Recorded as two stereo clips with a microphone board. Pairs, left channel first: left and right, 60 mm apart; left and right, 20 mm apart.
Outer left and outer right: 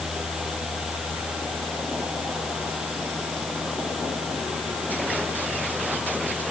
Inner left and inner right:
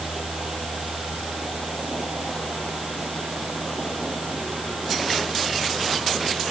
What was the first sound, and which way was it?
Only background noise.